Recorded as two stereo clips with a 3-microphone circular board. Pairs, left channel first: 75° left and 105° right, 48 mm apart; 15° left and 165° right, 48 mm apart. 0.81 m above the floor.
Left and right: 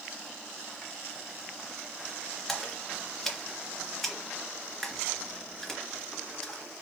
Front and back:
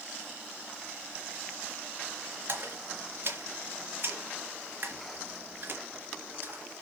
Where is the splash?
160° left, 2.5 m.